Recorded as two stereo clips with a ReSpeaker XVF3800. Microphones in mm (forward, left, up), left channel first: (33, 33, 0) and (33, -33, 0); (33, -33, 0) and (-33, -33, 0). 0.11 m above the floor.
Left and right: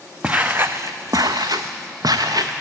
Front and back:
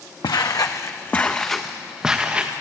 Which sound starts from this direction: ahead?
Footsteps, at 0.2 s.